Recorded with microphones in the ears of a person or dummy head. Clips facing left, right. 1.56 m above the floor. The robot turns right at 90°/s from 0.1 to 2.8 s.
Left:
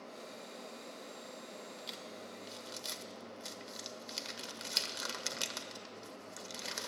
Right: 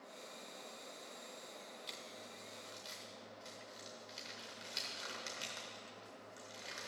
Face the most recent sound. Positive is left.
turn(degrees=75)  # may be behind; listen again after turning